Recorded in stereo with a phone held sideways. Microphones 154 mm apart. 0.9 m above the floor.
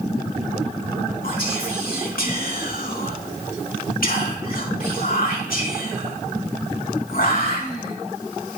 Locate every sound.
1.2 s whispering: 70° left (ahead or behind), 2 m